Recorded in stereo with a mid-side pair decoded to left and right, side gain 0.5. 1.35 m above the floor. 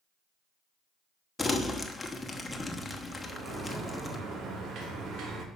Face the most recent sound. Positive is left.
turn(degrees=-60)